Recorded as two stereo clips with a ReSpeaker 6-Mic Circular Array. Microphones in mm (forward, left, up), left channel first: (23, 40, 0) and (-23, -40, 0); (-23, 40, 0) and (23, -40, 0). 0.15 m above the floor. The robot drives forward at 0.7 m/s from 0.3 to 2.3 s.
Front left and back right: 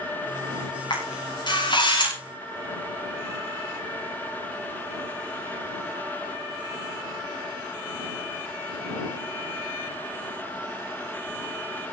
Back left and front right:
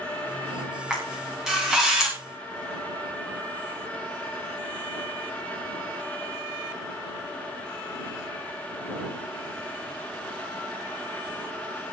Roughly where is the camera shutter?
Ahead.